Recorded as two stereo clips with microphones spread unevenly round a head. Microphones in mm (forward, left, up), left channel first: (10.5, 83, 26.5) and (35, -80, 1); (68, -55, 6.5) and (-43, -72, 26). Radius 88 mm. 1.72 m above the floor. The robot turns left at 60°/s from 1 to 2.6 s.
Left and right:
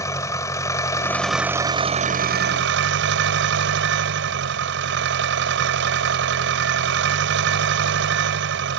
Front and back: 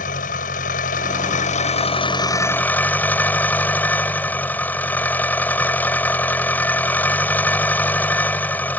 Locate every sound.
0.0 s an engine running: 30° left; by 8.8 s 65° right